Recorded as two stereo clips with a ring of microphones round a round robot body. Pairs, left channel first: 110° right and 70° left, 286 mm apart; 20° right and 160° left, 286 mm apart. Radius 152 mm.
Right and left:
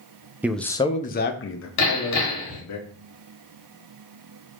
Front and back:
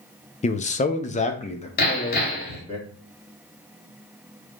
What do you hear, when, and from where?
0.4 s a man speaking: 10° right, 0.5 m; by 2.8 s 95° right, 1.3 m
1.8 s hammering: 80° right, 1.8 m